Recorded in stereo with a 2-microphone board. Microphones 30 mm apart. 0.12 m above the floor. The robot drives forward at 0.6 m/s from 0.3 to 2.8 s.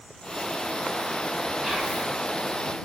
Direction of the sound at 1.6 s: 30° right (ahead or behind).